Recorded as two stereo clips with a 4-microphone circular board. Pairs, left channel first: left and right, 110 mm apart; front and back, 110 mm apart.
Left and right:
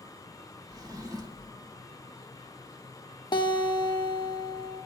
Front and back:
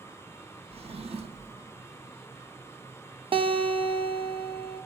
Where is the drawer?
145° right, 1.0 m.